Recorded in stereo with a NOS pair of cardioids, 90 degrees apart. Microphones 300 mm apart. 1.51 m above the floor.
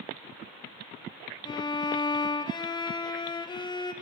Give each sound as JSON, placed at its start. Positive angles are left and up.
{"t": 1.4, "sound": "a violin", "azimuth_deg": 15, "distance_m": 0.6}